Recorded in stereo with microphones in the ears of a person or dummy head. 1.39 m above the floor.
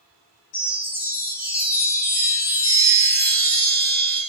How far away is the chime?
About 1.2 m.